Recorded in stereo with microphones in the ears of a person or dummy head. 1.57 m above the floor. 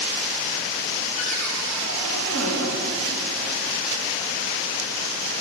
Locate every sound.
1.2 s a cupboard door: 80° left, 2 m